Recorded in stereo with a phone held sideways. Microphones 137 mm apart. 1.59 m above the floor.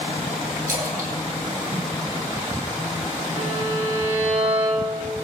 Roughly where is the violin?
Right.